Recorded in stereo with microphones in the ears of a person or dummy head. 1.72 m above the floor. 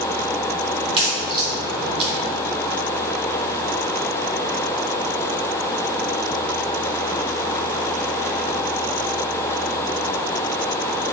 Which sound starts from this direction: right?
A crack, at 0.8 s.